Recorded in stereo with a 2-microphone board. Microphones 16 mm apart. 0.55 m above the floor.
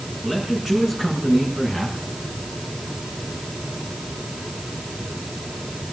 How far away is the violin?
I don't hear a violin.